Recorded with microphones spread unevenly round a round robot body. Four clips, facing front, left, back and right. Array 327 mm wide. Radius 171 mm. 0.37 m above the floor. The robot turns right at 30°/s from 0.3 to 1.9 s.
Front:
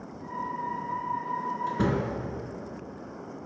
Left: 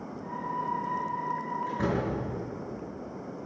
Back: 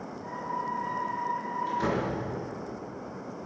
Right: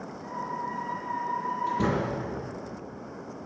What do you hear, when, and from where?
1.7 s a door slam: 15° right, 4.5 m; by 2.1 s 10° right, 4.5 m